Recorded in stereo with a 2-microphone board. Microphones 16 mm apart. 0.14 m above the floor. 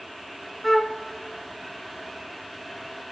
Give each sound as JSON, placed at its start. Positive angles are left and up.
{"t": 0.6, "sound": "a flute", "side_deg": 10, "distance_m": 1.0}